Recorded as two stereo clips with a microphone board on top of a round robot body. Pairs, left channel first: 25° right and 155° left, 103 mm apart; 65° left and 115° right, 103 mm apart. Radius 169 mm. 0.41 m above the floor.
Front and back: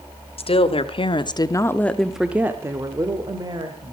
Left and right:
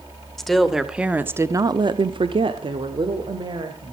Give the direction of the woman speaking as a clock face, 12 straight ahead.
1 o'clock.